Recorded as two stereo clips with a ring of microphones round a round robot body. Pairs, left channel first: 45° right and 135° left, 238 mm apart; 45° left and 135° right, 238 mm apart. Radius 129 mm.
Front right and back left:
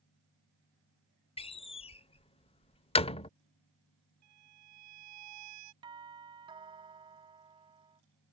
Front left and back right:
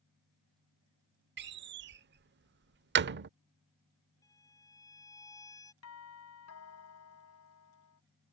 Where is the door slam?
105° right.